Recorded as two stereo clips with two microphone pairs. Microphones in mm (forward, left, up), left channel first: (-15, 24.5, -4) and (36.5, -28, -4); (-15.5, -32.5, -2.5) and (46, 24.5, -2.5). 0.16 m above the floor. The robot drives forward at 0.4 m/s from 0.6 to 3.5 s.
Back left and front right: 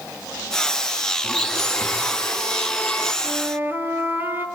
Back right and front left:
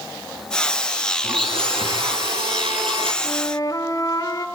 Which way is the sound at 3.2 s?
95° right.